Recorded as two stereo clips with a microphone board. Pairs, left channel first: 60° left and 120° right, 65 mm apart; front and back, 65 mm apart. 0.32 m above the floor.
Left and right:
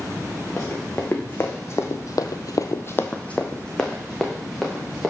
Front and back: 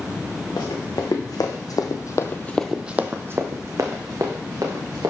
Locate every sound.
0.6 s running footsteps: 5° right, 2 m; by 5.1 s 150° left, 2.5 m